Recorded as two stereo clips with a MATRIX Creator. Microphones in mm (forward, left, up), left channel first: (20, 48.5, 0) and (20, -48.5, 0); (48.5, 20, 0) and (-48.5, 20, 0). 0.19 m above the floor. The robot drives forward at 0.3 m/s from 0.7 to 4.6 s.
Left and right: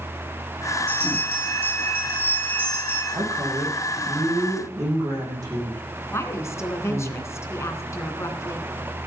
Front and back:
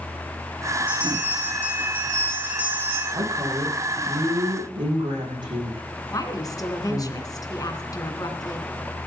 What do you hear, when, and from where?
0.9 s a bell: 105° right, 7.5 m; by 3.0 s 110° right, 7.5 m
3.1 s a woman speaking: 140° right, 10 m
6.1 s a woman speaking: 35° left, 2.5 m